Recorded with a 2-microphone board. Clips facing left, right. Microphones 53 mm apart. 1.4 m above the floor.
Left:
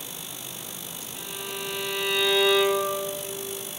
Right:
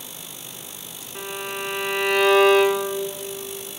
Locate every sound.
1.1 s a violin: 55° right (ahead or behind), 1.0 m